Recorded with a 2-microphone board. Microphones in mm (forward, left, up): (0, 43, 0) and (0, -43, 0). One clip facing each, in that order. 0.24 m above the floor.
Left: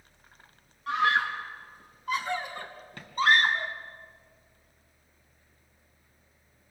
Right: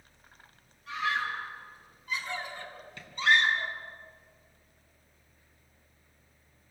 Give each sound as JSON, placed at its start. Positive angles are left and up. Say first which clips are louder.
{"t": 0.9, "sound": "a scream", "louder": "left 6 dB", "side_deg": 65, "distance_m": 3.5}